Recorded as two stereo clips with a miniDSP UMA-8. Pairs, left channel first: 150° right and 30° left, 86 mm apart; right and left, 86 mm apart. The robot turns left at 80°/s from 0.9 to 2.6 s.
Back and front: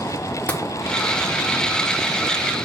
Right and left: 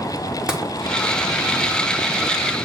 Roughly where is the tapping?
Behind.